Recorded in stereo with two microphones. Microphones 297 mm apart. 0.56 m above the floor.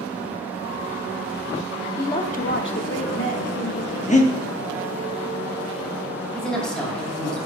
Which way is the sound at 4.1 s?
25° left (ahead or behind).